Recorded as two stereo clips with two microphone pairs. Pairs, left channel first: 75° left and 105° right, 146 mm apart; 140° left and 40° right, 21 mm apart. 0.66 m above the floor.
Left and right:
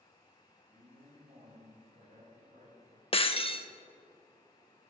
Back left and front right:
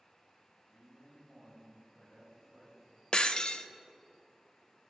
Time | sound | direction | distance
0.7 | a man speaking | 135° right | 3.5 m
3.1 | breaking glass | 115° left | 0.5 m